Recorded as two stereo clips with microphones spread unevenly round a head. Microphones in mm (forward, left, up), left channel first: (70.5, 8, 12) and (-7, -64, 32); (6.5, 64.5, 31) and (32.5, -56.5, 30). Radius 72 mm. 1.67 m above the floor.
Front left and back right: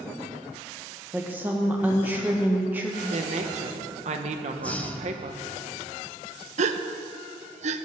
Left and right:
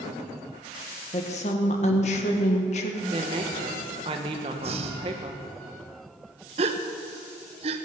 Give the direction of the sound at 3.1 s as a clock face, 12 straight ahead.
4 o'clock.